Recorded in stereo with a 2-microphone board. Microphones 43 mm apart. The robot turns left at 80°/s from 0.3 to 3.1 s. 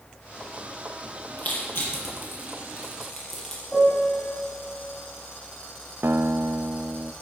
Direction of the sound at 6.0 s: 70° right (ahead or behind).